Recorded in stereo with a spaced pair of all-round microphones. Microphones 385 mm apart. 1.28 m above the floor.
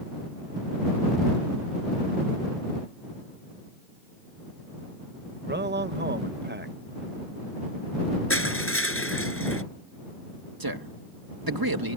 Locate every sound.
5.5 s a man speaking: 30° right (ahead or behind)
8.3 s crushing: 35° left (ahead or behind)
10.6 s a man speaking: 70° right (ahead or behind)